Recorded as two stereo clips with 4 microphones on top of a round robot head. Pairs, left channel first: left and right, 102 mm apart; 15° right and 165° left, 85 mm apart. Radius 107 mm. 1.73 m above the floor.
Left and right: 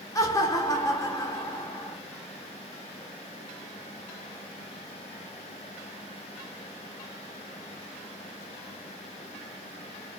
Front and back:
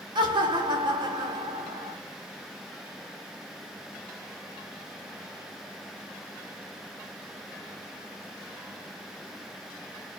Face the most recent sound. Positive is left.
turn(degrees=145)